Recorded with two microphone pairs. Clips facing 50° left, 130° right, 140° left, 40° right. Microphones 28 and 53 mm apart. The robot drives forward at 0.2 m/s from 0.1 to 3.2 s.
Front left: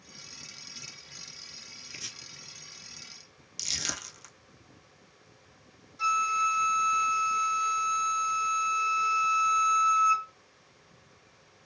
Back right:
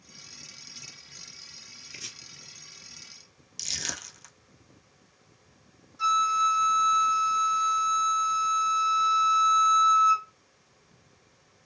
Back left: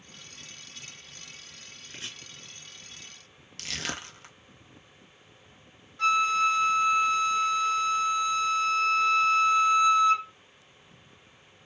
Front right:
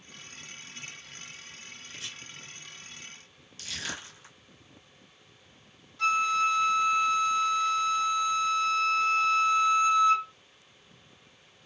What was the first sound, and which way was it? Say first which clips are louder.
Chopping: even, back left 1 dB; 135° left.